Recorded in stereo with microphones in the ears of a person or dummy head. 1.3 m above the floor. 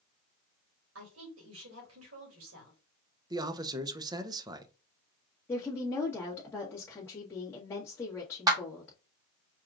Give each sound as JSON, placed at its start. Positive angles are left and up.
{"t": 0.9, "sound": "a woman speaking", "side_deg": -75, "distance_m": 2.5}
{"t": 3.3, "sound": "a man speaking", "side_deg": -15, "distance_m": 0.7}
{"t": 5.5, "sound": "a woman speaking", "side_deg": 20, "distance_m": 1.5}
{"t": 8.5, "sound": "a clap", "side_deg": -15, "distance_m": 1.4}